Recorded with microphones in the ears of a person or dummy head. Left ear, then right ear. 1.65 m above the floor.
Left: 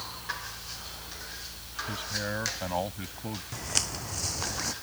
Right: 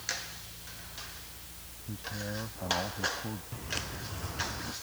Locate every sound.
1.9 s a man speaking: 70° left (ahead or behind)
3.5 s footsteps: 35° left (ahead or behind); by 4.8 s 45° left (ahead or behind)